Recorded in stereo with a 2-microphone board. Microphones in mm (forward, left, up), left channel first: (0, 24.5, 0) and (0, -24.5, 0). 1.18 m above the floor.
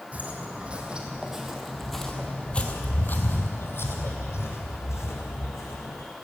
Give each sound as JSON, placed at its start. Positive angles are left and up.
{"t": 0.1, "sound": "footsteps", "side_deg": -30, "distance_m": 2.5}